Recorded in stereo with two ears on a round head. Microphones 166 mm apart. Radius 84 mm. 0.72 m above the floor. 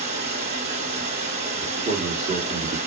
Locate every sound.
0.0 s running water: 40° right (ahead or behind), 1.1 m
1.6 s a man speaking: 35° right (ahead or behind), 1.4 m